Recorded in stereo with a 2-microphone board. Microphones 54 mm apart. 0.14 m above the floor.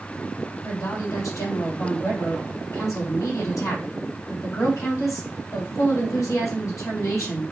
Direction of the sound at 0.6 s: 65° left (ahead or behind).